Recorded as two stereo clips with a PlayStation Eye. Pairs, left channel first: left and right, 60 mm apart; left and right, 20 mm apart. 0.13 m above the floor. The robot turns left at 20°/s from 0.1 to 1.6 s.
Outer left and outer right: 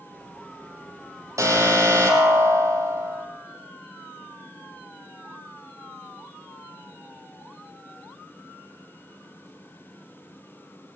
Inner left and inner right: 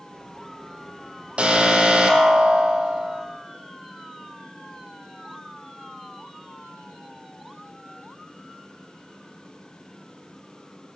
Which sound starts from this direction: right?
An alarm, at 1.4 s.